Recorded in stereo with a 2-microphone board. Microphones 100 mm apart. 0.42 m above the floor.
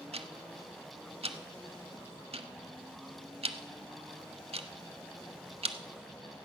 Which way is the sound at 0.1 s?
75° right (ahead or behind).